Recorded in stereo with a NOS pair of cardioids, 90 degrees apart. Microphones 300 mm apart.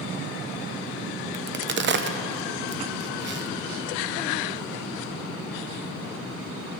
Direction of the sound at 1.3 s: 35° right.